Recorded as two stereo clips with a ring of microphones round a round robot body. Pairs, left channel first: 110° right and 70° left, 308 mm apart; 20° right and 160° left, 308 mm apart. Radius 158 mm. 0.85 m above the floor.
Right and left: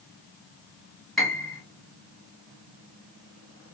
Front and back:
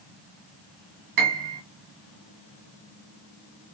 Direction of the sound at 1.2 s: 160° left.